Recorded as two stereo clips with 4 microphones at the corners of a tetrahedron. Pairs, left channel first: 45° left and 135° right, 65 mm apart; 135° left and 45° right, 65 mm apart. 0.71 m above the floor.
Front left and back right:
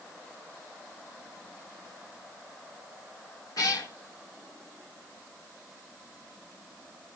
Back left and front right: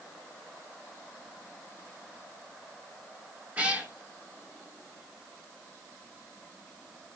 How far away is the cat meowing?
About 1.6 m.